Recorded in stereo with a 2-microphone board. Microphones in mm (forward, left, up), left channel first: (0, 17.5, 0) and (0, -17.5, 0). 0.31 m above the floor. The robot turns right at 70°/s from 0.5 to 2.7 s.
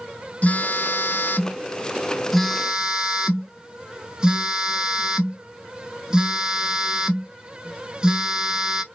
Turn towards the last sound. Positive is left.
turn(degrees=-160)